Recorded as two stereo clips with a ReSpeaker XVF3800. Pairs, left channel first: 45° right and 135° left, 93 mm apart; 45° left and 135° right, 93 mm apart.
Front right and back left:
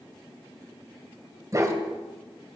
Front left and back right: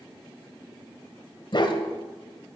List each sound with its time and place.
1.5 s a dog barking: 80° left, 1.9 m